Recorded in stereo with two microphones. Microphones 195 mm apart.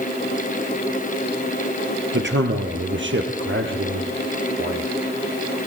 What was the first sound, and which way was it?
A man speaking, 65° right (ahead or behind).